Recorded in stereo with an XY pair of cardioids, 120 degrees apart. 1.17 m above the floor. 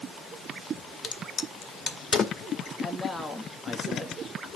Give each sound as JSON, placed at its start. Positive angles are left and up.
{"t": 1.0, "sound": "a crack", "azimuth_deg": 45, "distance_m": 2.0}
{"t": 2.8, "sound": "a man speaking", "azimuth_deg": 0, "distance_m": 1.9}